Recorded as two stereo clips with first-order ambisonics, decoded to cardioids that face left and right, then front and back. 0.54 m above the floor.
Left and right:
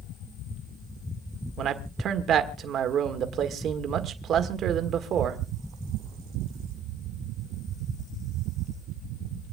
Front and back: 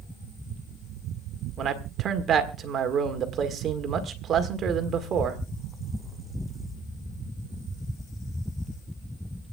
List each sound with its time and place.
1.6 s a man speaking: 135° right, 1.6 m